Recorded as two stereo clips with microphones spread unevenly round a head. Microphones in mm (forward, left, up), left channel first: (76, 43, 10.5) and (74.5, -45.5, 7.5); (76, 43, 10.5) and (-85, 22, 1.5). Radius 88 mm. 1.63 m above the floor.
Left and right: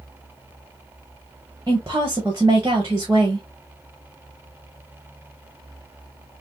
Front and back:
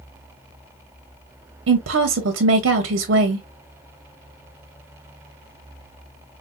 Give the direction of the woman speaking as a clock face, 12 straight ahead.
6 o'clock.